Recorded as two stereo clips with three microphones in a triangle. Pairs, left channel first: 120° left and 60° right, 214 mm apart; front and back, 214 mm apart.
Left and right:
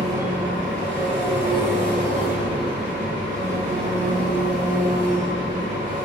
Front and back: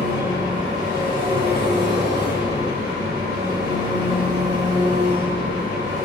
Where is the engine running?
110° right, 2 m.